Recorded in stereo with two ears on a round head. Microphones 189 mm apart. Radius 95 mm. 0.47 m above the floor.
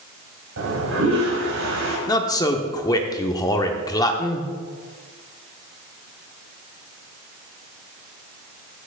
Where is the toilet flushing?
70° right (ahead or behind), 2.5 m.